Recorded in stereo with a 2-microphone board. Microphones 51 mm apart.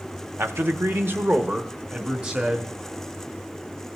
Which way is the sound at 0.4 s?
50° right (ahead or behind).